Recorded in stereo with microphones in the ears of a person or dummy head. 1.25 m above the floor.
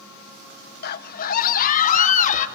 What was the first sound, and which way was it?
A scream, 55° left (ahead or behind).